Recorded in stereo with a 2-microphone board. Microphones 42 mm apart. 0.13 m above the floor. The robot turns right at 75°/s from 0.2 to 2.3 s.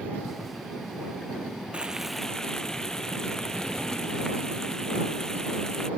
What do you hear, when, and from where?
1.7 s frying: 30° right; by 5.9 s 10° left